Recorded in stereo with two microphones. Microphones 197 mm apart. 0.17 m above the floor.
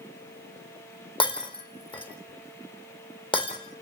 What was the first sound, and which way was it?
Breaking glass, 25° left (ahead or behind).